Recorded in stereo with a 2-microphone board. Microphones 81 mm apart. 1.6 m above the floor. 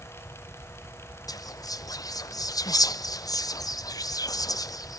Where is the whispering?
50° left (ahead or behind), 0.5 m.